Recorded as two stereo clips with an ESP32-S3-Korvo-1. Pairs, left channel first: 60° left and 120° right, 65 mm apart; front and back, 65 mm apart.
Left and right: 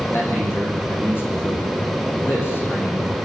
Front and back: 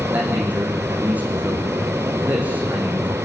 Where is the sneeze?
I don't hear a sneeze.